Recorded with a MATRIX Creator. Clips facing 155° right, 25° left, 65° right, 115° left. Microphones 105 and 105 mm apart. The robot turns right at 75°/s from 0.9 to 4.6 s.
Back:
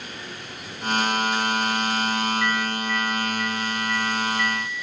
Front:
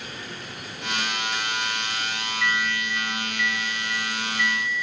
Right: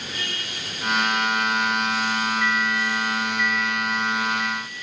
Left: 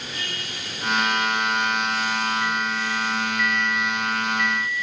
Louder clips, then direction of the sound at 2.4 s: Back 2 dB, right 1 dB; 130° left.